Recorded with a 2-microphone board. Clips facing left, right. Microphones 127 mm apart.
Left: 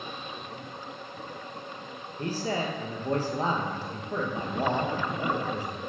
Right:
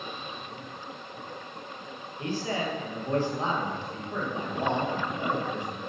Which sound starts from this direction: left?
A man speaking, at 2.2 s.